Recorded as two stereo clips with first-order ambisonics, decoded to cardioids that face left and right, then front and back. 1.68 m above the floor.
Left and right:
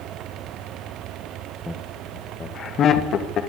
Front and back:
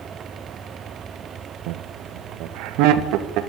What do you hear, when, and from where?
1.7 s laughter: straight behind, 1.3 m; by 3.4 s 145° left, 2.5 m